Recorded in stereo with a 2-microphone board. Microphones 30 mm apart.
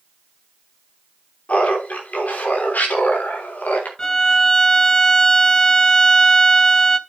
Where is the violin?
20° left (ahead or behind), 0.7 m.